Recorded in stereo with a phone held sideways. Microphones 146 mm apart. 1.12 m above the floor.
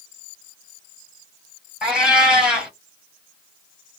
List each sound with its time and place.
1.8 s a cat meowing: 5° right (ahead or behind), 1.3 m